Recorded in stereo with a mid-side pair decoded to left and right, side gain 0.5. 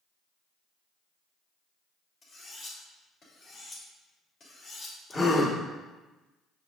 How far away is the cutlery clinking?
About 3.5 m.